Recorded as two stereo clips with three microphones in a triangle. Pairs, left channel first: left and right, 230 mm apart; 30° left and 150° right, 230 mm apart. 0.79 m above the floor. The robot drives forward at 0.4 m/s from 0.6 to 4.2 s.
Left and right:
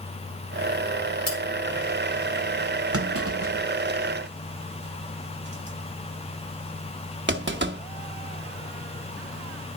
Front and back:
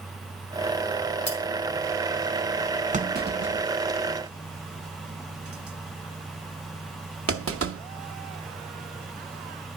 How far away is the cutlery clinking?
About 1.9 m.